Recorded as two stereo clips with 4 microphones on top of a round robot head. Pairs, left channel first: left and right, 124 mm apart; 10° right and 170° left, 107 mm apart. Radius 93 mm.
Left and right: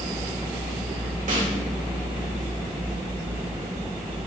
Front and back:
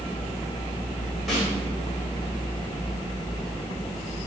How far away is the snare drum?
About 5 m.